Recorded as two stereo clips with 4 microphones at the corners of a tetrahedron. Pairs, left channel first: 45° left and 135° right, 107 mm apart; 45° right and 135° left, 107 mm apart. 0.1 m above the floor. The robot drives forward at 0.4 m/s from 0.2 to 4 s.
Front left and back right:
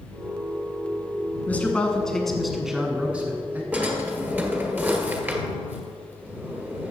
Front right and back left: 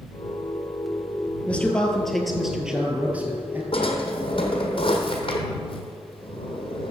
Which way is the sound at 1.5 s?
5° left.